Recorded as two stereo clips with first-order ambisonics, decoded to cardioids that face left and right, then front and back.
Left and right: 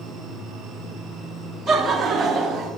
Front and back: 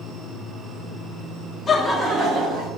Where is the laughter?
55° right, 0.6 m; by 2.7 s 155° right, 1.0 m.